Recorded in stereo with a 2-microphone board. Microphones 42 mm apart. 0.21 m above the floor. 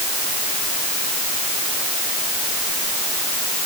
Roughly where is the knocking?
I don't hear knocking.